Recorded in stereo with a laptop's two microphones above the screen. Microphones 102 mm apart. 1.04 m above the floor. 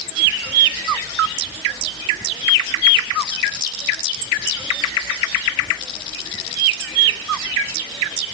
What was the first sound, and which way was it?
Only background noise.